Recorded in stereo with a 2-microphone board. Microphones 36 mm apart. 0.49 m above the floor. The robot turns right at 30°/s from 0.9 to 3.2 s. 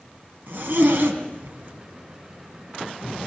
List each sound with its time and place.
0.5 s a zipper: 70° right (ahead or behind), 3 m; by 1.7 s 75° right (ahead or behind), 3 m